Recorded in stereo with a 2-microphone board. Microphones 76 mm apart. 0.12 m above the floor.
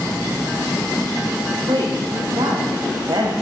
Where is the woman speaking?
70° right (ahead or behind), 8.5 m.